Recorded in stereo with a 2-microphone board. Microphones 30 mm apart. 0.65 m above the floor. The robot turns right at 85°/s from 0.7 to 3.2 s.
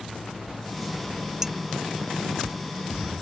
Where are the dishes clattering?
20° right (ahead or behind); by 1.5 s 30° right (ahead or behind).